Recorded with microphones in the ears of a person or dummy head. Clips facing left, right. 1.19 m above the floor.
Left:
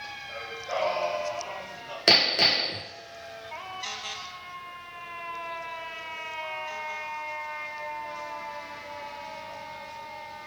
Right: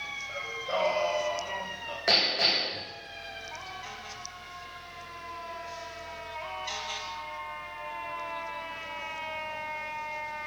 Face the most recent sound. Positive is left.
turn(degrees=45)  # may be behind; listen again after turning